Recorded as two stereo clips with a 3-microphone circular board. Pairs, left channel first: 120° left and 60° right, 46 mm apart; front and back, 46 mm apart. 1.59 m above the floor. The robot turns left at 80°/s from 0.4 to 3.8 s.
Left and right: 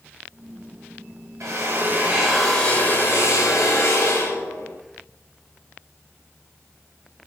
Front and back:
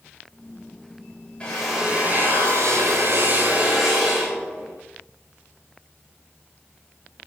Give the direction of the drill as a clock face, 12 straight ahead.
2 o'clock.